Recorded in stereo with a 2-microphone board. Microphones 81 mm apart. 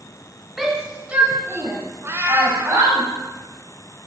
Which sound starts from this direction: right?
A cat meowing, at 2.0 s.